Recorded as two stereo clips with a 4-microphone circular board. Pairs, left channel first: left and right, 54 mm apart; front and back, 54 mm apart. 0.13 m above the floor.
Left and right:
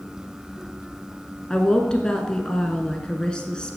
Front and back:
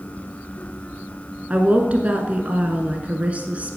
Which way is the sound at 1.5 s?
150° left.